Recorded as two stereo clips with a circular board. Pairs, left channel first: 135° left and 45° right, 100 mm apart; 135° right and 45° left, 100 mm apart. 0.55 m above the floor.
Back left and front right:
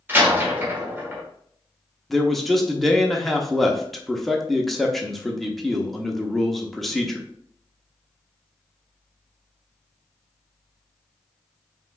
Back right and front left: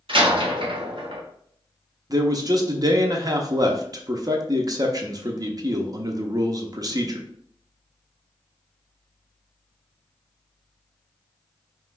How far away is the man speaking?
About 0.7 m.